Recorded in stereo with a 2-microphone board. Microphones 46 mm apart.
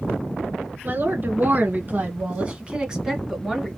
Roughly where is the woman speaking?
Right.